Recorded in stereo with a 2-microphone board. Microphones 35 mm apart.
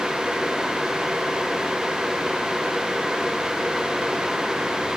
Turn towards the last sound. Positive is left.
No sound to turn to.